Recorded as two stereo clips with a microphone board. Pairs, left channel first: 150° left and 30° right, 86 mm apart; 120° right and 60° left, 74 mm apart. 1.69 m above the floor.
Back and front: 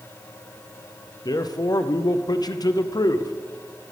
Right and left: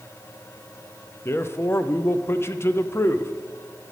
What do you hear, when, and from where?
1.2 s a man speaking: 175° right, 0.5 m